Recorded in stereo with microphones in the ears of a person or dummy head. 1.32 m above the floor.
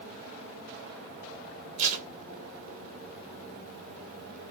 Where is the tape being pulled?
40° right (ahead or behind), 1.8 m.